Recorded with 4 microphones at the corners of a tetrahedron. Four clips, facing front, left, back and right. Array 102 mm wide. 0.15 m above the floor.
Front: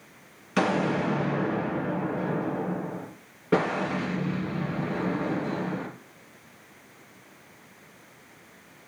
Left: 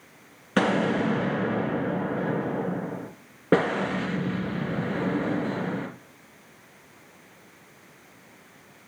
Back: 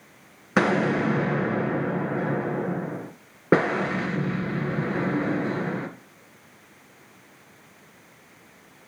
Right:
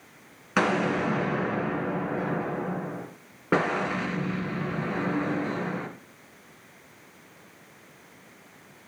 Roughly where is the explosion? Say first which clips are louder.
Left 1 dB, back 3 dB; behind.